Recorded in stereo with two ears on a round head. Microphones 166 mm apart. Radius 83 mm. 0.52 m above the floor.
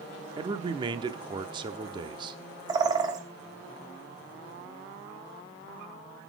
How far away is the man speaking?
About 0.7 m.